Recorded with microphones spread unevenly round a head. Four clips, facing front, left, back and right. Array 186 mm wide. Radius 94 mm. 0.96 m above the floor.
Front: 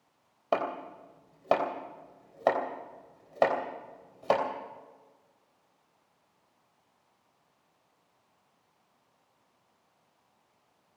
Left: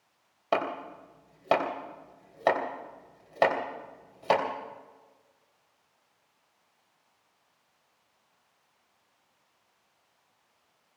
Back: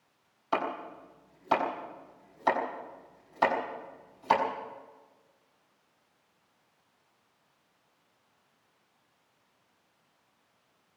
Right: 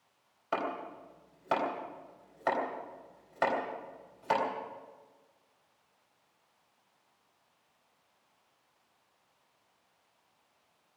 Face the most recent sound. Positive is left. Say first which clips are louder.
# left 5 dB, front 1 dB
turn(degrees=35)